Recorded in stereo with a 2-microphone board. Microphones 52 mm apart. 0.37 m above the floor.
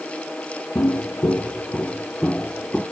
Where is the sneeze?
No sneeze in this recording.